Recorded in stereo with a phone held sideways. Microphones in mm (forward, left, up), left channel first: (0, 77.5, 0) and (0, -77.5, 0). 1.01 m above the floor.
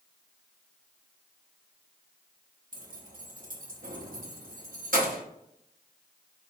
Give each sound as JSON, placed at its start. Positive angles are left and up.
{"t": 2.7, "sound": "keys jangling", "side_deg": -65, "distance_m": 0.9}